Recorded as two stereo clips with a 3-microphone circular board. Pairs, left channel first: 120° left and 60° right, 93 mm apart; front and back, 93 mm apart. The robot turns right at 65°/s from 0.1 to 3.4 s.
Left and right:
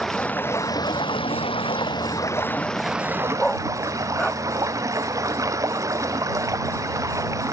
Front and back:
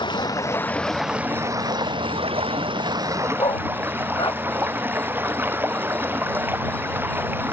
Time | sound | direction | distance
0.0 | running water | 35° left | ?
3.4 | a dog barking | 30° left | ?